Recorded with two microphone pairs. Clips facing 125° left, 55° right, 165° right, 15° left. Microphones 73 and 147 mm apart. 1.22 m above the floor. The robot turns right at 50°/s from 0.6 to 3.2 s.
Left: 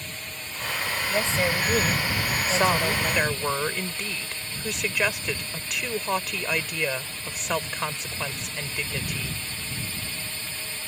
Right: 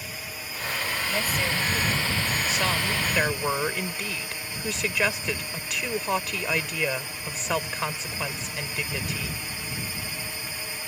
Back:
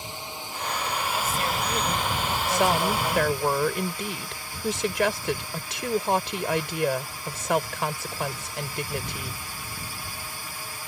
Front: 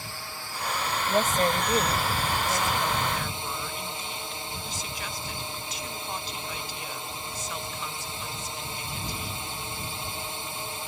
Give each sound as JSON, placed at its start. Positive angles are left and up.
{"t": 0.0, "sound": "a drone", "azimuth_deg": -130}
{"t": 1.1, "sound": "a woman speaking", "azimuth_deg": 50}
{"t": 2.5, "sound": "a woman speaking", "azimuth_deg": 175}